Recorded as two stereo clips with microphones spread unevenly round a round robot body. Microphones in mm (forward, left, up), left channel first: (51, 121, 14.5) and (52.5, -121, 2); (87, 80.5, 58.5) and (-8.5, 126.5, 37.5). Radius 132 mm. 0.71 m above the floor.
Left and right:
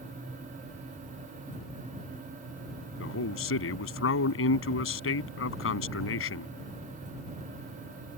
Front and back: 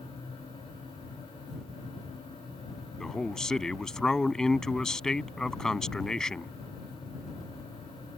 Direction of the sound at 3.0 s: 60° left.